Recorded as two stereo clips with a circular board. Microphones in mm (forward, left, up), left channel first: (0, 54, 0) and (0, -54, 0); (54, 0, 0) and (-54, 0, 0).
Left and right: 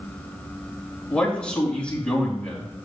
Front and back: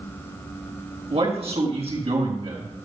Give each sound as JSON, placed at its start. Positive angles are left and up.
{"t": 1.1, "sound": "a man speaking", "azimuth_deg": 170, "distance_m": 4.0}